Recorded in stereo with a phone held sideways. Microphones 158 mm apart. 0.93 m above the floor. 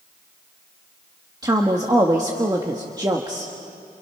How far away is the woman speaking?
About 1.4 m.